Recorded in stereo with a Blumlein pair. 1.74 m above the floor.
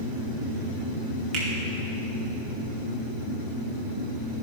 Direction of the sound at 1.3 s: 25° right.